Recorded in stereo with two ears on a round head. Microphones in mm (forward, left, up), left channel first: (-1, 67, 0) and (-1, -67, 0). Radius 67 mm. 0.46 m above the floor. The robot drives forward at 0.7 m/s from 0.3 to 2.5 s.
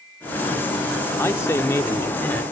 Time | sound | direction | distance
1.2 | a man speaking | 15° left (ahead or behind) | ?